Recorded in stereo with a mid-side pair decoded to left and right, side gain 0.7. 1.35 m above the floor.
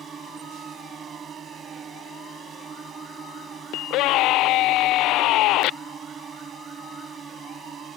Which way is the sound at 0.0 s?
30° right.